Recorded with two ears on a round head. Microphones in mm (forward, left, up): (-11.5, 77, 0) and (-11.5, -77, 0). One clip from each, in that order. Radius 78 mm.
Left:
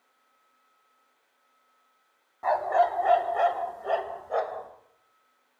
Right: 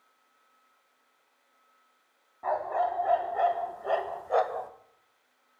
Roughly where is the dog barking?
Left.